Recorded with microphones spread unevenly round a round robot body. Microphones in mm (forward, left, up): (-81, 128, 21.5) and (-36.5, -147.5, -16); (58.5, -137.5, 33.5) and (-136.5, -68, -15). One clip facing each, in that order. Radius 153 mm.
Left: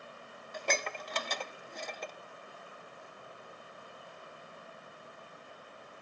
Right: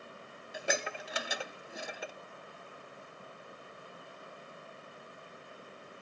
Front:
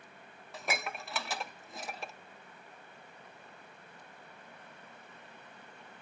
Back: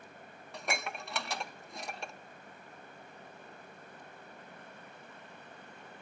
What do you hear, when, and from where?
0.5 s dishes clattering: 135° right, 0.6 m